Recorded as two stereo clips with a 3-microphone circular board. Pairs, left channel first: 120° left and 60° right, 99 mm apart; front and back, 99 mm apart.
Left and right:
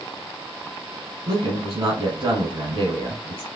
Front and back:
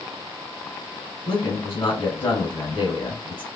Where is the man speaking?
20° right, 2 m.